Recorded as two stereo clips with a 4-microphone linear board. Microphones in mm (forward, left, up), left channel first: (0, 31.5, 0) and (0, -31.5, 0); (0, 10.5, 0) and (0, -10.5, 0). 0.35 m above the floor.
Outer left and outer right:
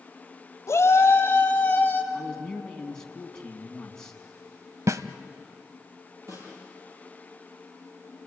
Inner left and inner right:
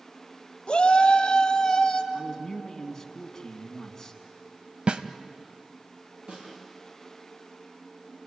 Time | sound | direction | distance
0.7 | a shout | 55° left (ahead or behind) | 1.8 m
2.1 | a man speaking | 10° left (ahead or behind) | 3 m
4.9 | a snare drum | 60° right (ahead or behind) | 1.0 m
6.3 | a snare drum | 65° right (ahead or behind) | 9.5 m